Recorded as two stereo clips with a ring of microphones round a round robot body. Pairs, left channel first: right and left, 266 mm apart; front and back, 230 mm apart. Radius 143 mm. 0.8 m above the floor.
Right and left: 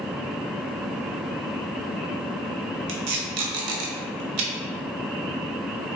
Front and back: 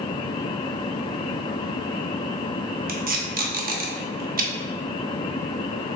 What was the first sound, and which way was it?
Tape being pulled, 125° left.